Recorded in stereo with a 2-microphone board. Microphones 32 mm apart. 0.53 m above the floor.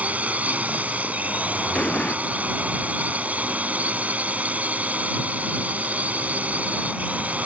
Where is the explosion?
40° left (ahead or behind).